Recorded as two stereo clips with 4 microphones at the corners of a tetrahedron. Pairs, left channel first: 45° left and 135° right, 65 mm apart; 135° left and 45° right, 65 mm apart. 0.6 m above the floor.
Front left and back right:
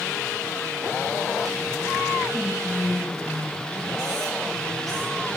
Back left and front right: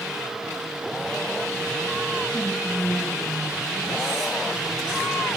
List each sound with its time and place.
2.3 s whispering: 45° left, 4 m